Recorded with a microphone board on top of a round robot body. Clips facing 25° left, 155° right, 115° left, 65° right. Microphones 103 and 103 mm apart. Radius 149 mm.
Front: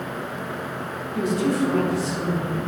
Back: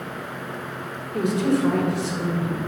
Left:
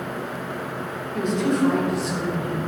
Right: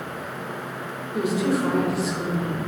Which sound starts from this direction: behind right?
A woman speaking, at 1.1 s.